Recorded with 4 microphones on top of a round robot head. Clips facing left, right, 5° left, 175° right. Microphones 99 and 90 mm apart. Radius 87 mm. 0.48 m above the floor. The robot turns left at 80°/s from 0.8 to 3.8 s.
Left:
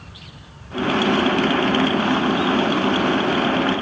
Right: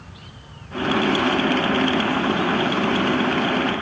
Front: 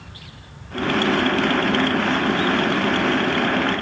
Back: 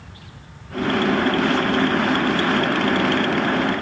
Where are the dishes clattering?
I don't hear dishes clattering.